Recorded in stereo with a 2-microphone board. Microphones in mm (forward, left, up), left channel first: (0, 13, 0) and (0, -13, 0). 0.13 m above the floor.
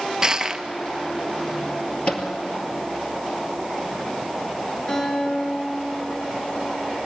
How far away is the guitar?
About 8 m.